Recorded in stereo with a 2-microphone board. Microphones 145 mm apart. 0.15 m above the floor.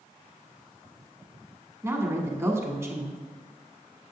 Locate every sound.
1.8 s a woman speaking: 15° right (ahead or behind), 1.0 m